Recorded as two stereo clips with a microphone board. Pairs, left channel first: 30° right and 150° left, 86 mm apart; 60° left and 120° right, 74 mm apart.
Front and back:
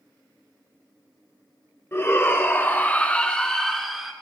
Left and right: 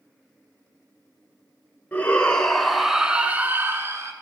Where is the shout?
5° left, 1.5 m; by 4.1 s 125° right, 1.5 m.